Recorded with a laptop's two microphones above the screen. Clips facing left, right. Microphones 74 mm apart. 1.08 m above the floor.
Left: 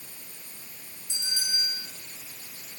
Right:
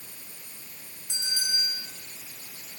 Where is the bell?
60° right (ahead or behind), 6 m.